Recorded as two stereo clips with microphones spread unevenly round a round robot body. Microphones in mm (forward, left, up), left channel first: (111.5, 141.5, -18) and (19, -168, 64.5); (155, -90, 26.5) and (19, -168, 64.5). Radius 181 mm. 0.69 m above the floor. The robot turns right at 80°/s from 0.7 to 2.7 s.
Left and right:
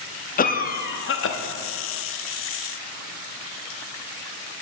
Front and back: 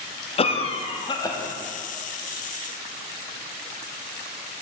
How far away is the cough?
About 0.8 m.